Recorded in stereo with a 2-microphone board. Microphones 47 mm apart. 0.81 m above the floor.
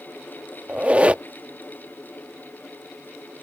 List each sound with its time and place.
0.7 s a squeak: 25° right (ahead or behind)